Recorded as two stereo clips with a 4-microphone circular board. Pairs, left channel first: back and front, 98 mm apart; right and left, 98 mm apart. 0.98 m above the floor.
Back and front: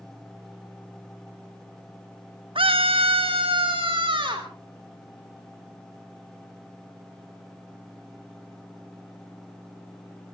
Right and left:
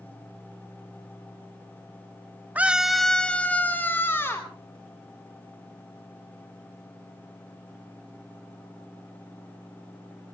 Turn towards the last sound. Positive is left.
turn(degrees=-25)